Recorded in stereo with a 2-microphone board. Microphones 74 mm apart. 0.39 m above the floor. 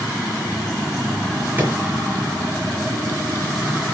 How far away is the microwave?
About 5.5 m.